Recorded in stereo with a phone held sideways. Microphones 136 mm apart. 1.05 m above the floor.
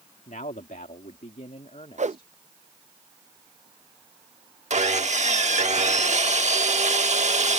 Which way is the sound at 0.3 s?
70° left (ahead or behind).